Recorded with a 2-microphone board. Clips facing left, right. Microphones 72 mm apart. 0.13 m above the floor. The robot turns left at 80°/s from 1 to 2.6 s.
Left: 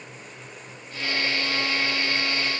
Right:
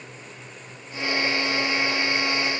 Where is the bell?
I don't hear a bell.